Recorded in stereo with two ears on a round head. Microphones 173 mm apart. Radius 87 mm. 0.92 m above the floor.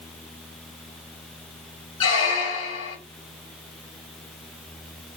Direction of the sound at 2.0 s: 25° left (ahead or behind).